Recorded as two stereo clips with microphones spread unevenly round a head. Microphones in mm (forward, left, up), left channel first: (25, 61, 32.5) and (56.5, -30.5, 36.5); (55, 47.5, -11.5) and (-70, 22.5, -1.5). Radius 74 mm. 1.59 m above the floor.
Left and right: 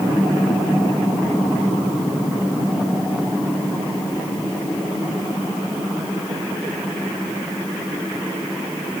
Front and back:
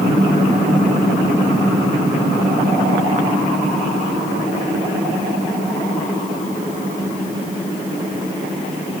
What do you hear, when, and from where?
Only background noise.